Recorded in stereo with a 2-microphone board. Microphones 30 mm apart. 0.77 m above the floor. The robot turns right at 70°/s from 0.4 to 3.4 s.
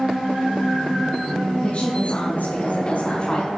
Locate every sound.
1.6 s a woman speaking: 35° left, 6.5 m; by 3.5 s 160° left, 6.5 m